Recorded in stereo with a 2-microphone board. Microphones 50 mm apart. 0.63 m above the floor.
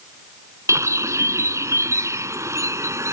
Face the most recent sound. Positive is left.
turn(degrees=-75)  # may be behind; listen again after turning